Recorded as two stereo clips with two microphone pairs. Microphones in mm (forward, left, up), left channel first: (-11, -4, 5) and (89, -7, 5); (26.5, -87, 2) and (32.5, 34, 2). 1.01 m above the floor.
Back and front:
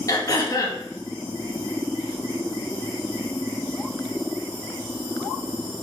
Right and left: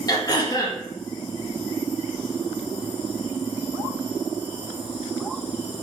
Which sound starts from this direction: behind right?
Throat clearing, at 0.1 s.